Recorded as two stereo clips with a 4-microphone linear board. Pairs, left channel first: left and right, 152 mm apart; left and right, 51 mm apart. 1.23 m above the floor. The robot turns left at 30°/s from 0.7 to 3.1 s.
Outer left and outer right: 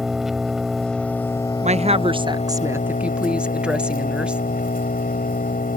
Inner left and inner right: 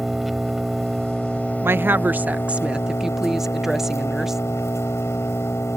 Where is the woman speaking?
130° right; by 4.4 s 175° right.